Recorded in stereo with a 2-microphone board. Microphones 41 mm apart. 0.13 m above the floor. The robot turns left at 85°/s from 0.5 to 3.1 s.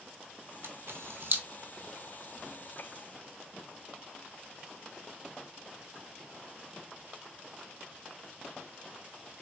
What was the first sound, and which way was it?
A camera shutter, 65° right (ahead or behind).